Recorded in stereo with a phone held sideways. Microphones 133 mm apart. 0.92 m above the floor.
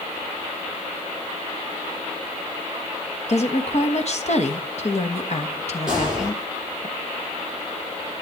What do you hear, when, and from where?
3.3 s a woman speaking: 55° left (ahead or behind), 1.3 m
5.9 s a gunshot: 5° right (ahead or behind), 6.5 m